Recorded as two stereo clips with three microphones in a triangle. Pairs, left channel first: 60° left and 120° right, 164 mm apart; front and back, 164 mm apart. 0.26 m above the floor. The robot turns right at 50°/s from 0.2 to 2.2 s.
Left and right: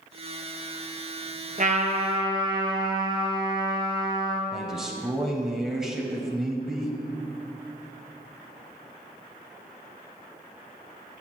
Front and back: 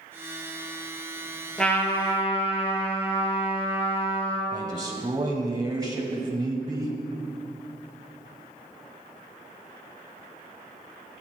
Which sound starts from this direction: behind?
A man speaking, at 4.5 s.